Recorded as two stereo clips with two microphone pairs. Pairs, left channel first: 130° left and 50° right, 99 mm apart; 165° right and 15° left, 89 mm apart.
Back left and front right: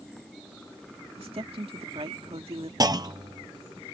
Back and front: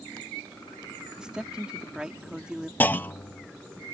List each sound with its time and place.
1.2 s a woman speaking: 65° right
2.8 s a clunk: 95° right